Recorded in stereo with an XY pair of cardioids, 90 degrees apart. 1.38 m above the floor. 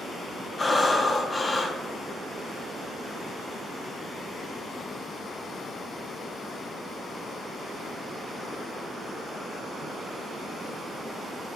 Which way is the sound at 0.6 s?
30° left.